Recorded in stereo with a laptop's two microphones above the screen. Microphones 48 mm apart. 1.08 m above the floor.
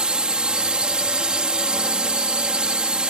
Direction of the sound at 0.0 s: 20° right (ahead or behind).